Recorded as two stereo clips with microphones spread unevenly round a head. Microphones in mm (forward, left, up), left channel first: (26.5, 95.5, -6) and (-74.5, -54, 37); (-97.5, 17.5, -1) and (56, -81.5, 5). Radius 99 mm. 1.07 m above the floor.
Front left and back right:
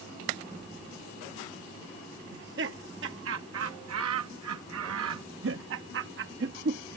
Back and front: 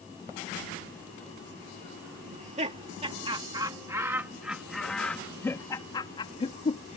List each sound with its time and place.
2.3 s laughter: 80° right; by 7.0 s 160° right